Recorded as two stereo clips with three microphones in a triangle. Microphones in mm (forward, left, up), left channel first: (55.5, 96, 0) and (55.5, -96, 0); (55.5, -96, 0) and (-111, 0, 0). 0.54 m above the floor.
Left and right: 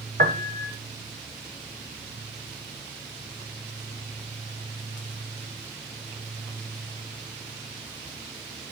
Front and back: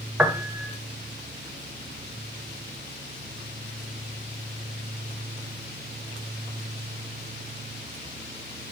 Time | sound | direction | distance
0.2 | a piano | 125° right | 0.8 m